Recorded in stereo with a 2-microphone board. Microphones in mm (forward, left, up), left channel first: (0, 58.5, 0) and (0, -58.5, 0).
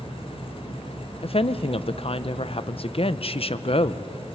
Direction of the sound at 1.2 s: 55° left (ahead or behind).